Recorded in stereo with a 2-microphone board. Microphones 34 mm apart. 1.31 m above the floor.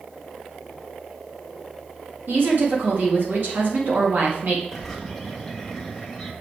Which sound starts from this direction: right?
A woman speaking, at 2.3 s.